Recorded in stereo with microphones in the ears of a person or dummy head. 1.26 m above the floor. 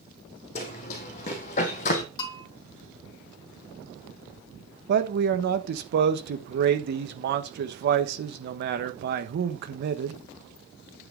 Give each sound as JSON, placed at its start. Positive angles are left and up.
{"t": 0.6, "sound": "running footsteps", "side_deg": 40, "distance_m": 2.5}
{"t": 2.2, "sound": "a bell", "side_deg": 25, "distance_m": 1.8}
{"t": 4.9, "sound": "a man speaking", "side_deg": -55, "distance_m": 1.3}